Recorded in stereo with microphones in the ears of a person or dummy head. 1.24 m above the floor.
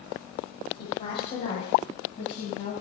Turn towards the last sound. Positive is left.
turn(degrees=45)  # may be behind; listen again after turning